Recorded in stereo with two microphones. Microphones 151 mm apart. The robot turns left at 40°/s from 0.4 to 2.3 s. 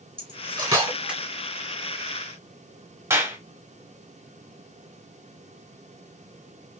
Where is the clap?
20° right (ahead or behind), 1.6 m.